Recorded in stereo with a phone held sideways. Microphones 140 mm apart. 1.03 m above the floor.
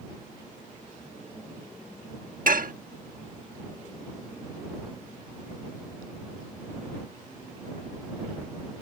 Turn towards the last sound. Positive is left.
turn(degrees=-70)  # may be behind; listen again after turning